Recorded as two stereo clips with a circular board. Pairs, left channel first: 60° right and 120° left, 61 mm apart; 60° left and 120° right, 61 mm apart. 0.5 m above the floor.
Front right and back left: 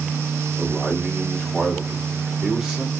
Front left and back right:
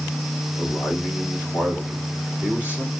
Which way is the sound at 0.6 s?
60° left.